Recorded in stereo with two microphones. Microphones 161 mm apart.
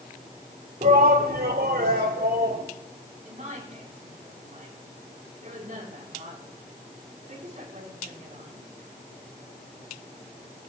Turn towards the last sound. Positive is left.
turn(degrees=-50)  # may be behind; listen again after turning